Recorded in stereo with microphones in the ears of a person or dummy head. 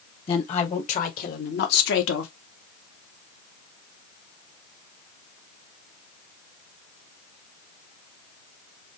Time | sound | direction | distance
0.3 | a woman speaking | 35° left (ahead or behind) | 1.4 m